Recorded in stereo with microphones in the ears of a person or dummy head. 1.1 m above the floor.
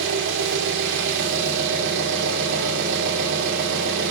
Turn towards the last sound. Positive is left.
turn(degrees=-70)  # may be behind; listen again after turning